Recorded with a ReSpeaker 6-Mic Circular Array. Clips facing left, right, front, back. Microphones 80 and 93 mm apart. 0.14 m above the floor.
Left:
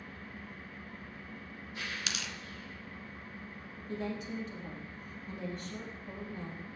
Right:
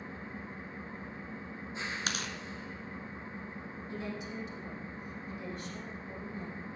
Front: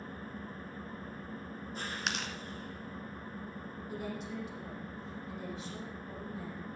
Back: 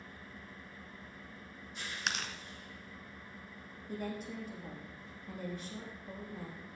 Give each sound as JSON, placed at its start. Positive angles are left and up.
{"t": 0.0, "sound": "an engine running", "azimuth_deg": -30, "distance_m": 0.8}
{"t": 2.1, "sound": "tearing paper", "azimuth_deg": -90, "distance_m": 1.4}
{"t": 3.9, "sound": "a woman speaking", "azimuth_deg": 140, "distance_m": 6.0}